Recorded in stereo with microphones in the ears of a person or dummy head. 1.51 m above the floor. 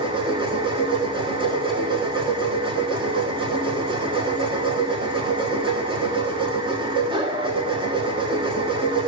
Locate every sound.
0.0 s a machine running: 15° right (ahead or behind), 1.2 m